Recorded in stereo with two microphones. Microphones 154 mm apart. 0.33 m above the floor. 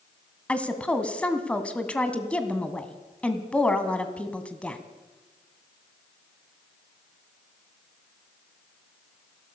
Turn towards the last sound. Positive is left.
turn(degrees=10)  # may be behind; listen again after turning